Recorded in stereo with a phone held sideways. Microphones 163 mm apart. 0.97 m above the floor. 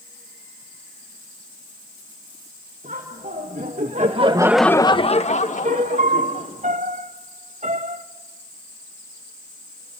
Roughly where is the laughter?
Right.